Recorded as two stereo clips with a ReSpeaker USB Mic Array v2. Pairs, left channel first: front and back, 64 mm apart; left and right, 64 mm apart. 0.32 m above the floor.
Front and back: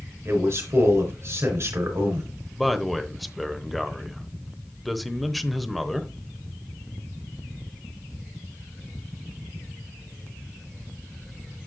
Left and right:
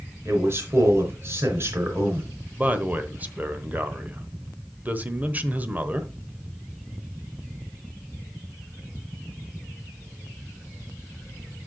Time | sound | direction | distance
0.2 | a man speaking | 135° right | 3.5 m
2.5 | a man speaking | 90° right | 0.9 m